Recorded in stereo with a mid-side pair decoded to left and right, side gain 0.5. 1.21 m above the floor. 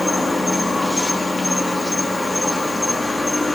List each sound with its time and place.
0.0 s an insect: 20° left, 4.5 m